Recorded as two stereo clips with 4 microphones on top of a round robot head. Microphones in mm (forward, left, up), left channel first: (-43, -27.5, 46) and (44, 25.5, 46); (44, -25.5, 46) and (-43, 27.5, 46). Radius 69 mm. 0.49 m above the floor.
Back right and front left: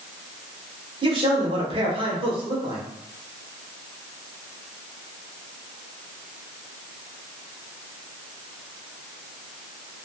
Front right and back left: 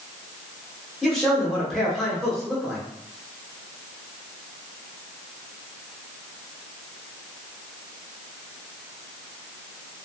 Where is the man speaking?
55° left, 1.5 m.